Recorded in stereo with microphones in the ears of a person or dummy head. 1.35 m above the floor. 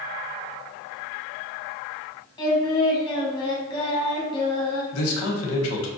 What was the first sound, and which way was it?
Singing, 25° left (ahead or behind).